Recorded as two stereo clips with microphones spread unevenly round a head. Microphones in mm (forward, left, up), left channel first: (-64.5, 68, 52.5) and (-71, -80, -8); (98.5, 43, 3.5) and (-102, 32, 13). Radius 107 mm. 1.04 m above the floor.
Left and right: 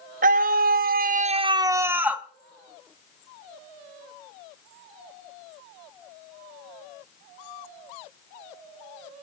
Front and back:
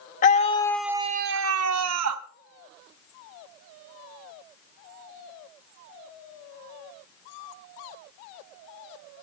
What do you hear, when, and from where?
0.2 s a scream: 55° right, 1.2 m; by 2.2 s 175° right, 1.7 m